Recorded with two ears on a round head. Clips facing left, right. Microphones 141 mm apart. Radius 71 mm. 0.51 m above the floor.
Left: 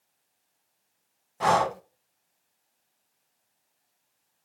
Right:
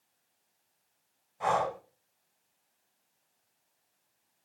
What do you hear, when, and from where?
1.4 s breathing: 75° left (ahead or behind), 0.9 m